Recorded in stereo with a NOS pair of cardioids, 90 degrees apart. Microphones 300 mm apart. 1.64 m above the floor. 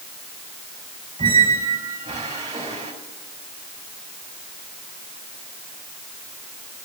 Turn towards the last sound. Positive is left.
turn(degrees=-20)